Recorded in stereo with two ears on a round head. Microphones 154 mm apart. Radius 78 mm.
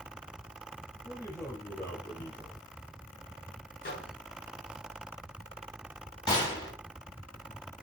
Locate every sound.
1.0 s a man speaking: 20° left (ahead or behind), 5.5 m
3.8 s a microwave: 55° left (ahead or behind), 3 m
6.3 s a gunshot: 25° left (ahead or behind), 3.5 m